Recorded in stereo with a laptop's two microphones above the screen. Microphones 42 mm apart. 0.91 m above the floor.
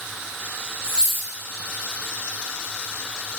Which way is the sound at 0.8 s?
15° left (ahead or behind).